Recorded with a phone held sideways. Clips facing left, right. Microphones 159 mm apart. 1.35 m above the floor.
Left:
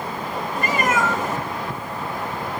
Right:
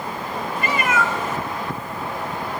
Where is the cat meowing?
40° left (ahead or behind), 1.1 m.